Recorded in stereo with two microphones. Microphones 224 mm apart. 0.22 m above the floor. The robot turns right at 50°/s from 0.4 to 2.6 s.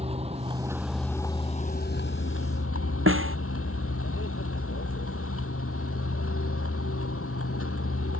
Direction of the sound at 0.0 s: 25° right.